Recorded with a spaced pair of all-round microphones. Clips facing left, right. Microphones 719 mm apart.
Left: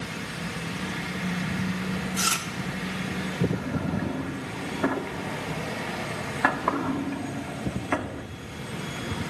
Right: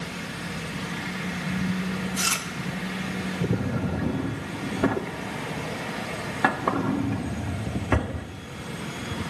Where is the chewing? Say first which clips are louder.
Even; 10° right (ahead or behind), 2 m.